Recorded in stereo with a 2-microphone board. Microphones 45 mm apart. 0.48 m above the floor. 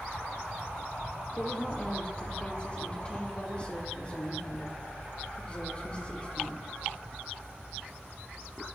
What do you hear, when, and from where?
1.3 s a woman speaking: 30° left (ahead or behind), 0.9 m